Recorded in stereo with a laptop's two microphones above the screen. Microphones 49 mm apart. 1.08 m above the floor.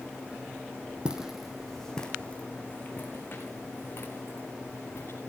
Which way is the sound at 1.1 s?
15° right (ahead or behind).